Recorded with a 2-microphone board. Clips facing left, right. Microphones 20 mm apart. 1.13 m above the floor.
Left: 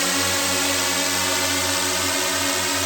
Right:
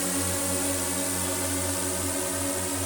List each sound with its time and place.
0.0 s a drone: 60° left (ahead or behind); by 2.9 s 65° left (ahead or behind)